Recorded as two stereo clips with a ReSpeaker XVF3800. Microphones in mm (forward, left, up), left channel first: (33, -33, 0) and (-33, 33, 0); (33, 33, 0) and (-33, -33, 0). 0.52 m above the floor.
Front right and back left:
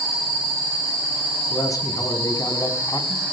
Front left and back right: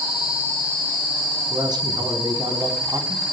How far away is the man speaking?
About 4.5 m.